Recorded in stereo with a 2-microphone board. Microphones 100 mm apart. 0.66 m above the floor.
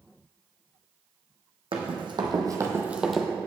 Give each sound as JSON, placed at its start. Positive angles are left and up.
{"t": 1.7, "sound": "running footsteps", "side_deg": -60, "distance_m": 1.7}